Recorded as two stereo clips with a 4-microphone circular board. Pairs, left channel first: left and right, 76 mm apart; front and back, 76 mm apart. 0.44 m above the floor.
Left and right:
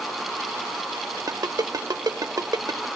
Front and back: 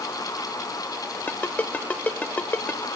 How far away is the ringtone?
About 0.7 m.